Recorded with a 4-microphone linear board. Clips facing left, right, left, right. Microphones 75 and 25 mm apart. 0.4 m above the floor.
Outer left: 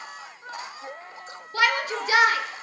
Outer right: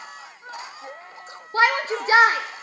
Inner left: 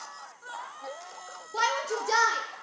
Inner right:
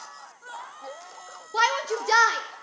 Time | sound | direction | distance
1.5 | a shout | 30° right (ahead or behind) | 1.1 m